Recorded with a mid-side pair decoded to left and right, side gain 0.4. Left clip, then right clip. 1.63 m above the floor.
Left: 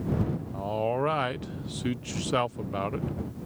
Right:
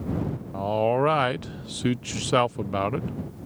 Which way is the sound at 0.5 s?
40° right.